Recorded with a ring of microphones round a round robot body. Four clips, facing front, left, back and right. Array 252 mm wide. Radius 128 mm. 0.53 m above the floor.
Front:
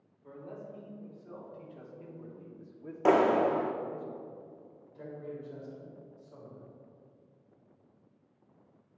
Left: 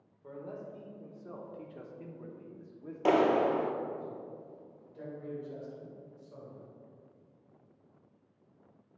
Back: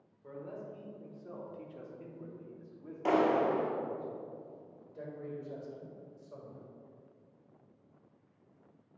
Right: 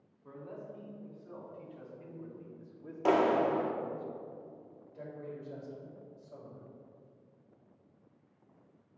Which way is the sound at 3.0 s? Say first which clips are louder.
Left 1 dB, front 4 dB; 20° left.